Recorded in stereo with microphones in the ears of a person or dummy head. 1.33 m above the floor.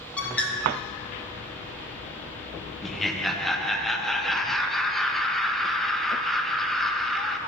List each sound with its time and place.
0.2 s a bird: 5° left (ahead or behind), 0.7 m
2.8 s laughter: centre (ahead or behind), 0.6 m